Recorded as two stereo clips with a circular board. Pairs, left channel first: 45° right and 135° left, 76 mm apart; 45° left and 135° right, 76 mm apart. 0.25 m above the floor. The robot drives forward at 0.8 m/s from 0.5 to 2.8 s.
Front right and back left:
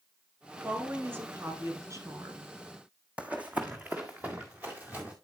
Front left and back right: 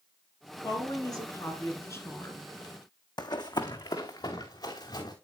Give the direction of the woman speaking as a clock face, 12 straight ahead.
10 o'clock.